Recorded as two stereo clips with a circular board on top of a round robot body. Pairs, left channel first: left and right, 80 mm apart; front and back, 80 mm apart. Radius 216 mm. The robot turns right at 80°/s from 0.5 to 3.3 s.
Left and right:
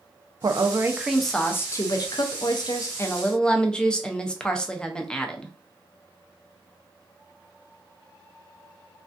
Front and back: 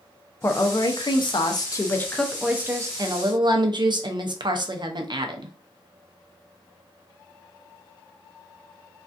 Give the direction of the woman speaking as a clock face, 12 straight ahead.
2 o'clock.